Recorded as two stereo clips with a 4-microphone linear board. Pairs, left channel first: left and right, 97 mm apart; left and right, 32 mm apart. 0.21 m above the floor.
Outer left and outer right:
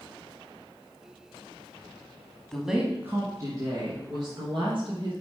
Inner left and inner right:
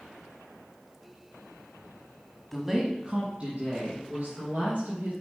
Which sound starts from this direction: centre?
A woman speaking, at 2.5 s.